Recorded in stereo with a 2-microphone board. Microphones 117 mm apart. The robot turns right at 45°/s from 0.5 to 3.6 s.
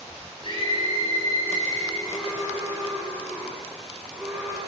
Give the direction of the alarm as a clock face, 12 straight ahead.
8 o'clock.